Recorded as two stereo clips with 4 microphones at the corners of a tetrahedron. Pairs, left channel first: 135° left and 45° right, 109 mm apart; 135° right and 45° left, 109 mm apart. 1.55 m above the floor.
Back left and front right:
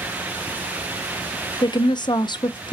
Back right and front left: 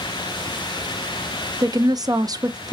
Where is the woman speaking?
90° left, 0.5 m.